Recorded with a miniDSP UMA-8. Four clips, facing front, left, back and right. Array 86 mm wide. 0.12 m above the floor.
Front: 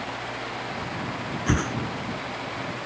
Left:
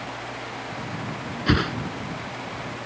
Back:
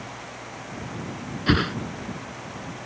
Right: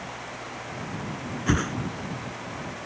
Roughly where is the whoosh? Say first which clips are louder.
Left 3 dB, back 4 dB; behind left.